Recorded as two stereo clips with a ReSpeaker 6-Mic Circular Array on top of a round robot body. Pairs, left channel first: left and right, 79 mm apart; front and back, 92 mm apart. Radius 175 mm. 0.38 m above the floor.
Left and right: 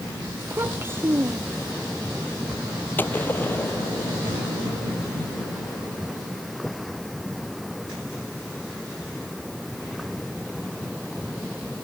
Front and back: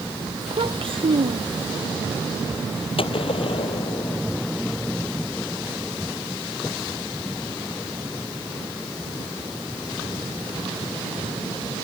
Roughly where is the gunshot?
Ahead left.